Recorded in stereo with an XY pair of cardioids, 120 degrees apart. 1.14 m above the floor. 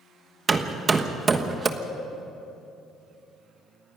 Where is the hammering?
30° right, 1.3 m.